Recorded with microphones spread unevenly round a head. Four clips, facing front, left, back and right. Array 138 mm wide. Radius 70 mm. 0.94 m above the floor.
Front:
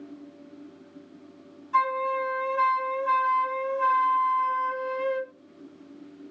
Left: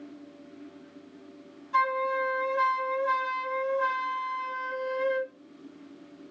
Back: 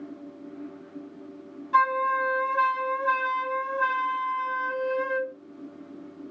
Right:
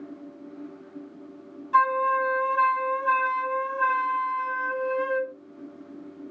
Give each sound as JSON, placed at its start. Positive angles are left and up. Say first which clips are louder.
{"t": 1.7, "sound": "a flute", "louder": "right 5 dB, back 2 dB", "azimuth_deg": -160, "distance_m": 2.0}